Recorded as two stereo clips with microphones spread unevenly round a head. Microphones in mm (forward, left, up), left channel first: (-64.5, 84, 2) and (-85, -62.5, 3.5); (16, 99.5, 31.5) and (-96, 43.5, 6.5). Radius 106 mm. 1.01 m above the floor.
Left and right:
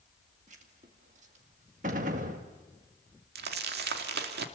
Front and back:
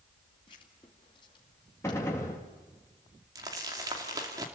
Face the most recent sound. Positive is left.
turn(degrees=-85)